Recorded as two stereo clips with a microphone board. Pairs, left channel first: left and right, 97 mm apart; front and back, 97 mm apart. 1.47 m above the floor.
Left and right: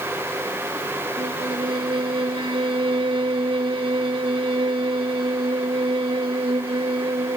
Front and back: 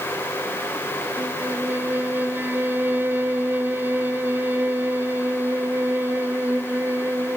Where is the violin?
110° right.